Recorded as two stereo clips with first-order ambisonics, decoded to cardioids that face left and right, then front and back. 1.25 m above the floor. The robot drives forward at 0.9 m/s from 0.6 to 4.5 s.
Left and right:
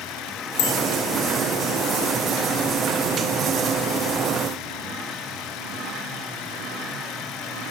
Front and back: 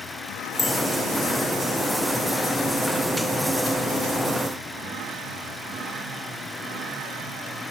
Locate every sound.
0.6 s a bicycle bell: 85° left, 3 m